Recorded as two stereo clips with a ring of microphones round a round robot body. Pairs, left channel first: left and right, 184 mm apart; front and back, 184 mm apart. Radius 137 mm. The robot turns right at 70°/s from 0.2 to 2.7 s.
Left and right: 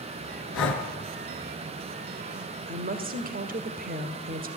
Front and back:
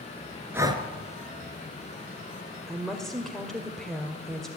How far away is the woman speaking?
About 1.8 m.